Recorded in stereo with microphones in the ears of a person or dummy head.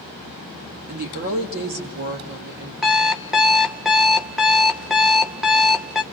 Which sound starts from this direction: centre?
An alarm clock, at 2.8 s.